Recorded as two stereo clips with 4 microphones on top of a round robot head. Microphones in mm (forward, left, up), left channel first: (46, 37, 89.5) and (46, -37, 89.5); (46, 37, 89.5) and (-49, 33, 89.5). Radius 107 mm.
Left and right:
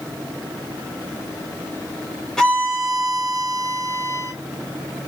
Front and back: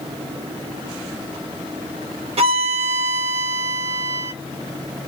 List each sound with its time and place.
2.4 s a violin: 175° left, 1.3 m